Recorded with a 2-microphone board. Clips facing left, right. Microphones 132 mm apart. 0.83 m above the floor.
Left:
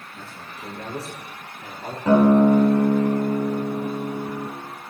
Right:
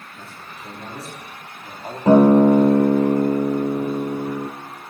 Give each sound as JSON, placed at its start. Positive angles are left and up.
{"t": 0.1, "sound": "a man speaking", "side_deg": 75, "distance_m": 8.5}
{"t": 2.1, "sound": "a guitar", "side_deg": -35, "distance_m": 3.5}